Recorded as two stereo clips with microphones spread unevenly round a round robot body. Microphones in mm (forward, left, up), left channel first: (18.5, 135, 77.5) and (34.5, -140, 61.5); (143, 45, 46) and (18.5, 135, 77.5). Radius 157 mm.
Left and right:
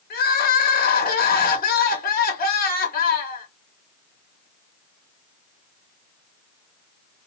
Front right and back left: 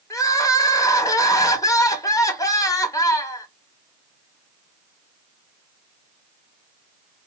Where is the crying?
35° left, 0.7 m.